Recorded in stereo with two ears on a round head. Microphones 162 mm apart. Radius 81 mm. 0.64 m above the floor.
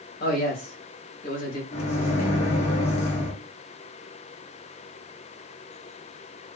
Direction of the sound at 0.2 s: 55° left (ahead or behind).